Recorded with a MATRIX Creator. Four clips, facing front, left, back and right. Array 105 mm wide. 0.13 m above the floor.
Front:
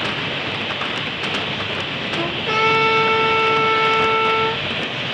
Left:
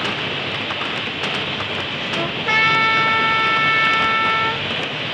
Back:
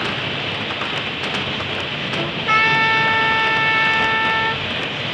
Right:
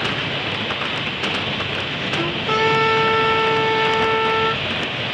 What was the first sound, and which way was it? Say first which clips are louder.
A trumpet: right 1 dB, back 1 dB; 120° left.